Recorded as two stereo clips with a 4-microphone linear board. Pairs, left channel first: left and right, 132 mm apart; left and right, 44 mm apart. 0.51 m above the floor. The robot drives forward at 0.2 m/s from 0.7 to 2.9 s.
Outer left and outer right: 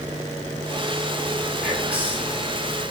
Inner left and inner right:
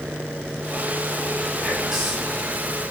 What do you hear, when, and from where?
1.6 s whispering: 10° right (ahead or behind), 0.6 m